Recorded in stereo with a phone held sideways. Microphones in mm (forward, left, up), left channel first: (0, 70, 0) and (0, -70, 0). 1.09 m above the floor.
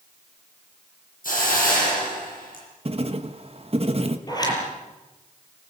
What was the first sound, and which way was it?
A hiss, 80° left.